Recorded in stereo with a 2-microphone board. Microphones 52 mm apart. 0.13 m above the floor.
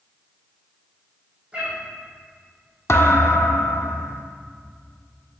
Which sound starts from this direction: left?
A thud, at 2.9 s.